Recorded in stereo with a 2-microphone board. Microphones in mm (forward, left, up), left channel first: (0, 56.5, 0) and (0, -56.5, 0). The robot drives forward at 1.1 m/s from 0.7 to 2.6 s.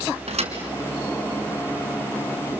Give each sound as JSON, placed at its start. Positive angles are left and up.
{"t": 0.3, "sound": "a thud", "side_deg": -70, "distance_m": 4.0}